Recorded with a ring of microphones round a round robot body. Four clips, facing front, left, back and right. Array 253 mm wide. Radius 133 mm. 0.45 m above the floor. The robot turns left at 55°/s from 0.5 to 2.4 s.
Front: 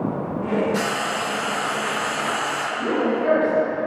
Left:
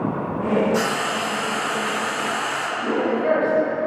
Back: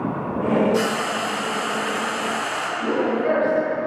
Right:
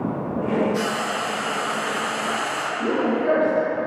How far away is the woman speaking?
About 2.0 m.